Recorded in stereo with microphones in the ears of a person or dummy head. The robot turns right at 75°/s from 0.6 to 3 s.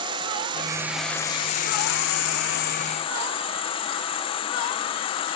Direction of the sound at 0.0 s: 30° right.